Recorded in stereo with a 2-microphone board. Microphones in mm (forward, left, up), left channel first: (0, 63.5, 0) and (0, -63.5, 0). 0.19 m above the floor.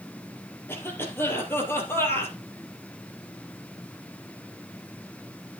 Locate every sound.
0.7 s a cough: 20° left (ahead or behind), 4 m